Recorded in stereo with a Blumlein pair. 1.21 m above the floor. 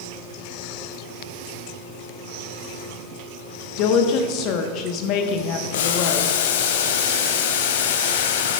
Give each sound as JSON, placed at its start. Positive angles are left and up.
{"t": 3.8, "sound": "a woman speaking", "azimuth_deg": 40, "distance_m": 1.0}
{"t": 5.7, "sound": "boiling", "azimuth_deg": 55, "distance_m": 0.7}